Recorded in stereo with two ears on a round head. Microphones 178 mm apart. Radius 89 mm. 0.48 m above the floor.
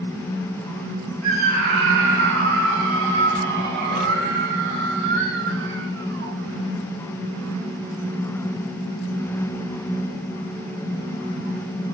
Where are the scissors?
No scissors in this recording.